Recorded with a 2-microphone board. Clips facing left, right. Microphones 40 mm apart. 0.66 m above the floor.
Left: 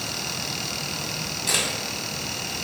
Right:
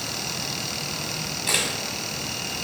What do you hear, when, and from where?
1.5 s a camera shutter: 15° right (ahead or behind), 2 m